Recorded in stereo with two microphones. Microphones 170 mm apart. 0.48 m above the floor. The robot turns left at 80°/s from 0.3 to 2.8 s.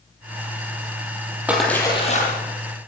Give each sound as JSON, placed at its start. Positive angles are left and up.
{"t": 1.5, "sound": "a splash", "azimuth_deg": -170, "distance_m": 4.5}